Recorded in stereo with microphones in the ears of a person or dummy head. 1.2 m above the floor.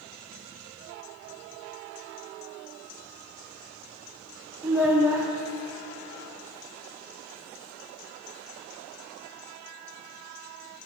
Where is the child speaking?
10° right (ahead or behind), 0.5 m.